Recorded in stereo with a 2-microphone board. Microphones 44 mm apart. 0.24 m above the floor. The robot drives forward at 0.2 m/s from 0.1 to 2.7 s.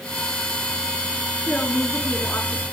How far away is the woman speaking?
About 3 m.